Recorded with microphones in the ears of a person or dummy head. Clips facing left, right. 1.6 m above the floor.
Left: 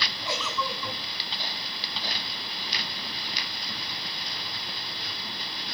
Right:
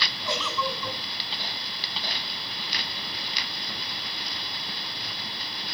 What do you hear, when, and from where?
0.2 s a giggle: 10° left (ahead or behind), 9 m